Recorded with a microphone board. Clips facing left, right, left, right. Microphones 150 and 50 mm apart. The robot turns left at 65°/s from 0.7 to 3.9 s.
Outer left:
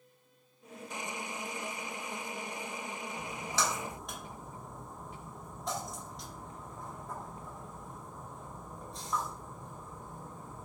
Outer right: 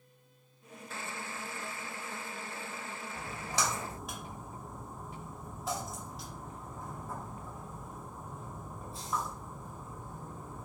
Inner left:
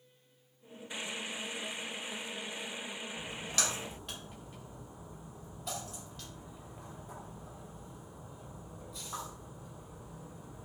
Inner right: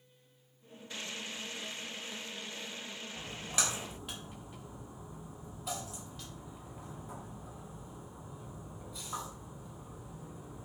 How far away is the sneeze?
No sneeze in this recording.